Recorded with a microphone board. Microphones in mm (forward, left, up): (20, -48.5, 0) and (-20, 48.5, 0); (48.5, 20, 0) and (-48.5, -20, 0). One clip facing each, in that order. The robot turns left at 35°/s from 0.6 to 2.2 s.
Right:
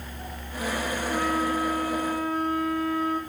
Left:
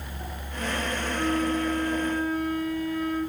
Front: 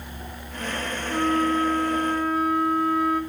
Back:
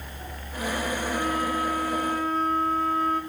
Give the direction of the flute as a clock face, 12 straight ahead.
1 o'clock.